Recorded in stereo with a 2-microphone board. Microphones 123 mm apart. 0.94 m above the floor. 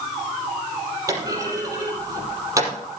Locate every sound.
1.1 s a clunk: 25° right (ahead or behind), 5.5 m